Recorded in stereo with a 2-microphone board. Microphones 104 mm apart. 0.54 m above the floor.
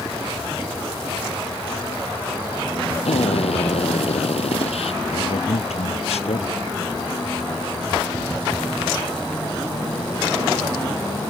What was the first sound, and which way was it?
A drill, 75° left (ahead or behind).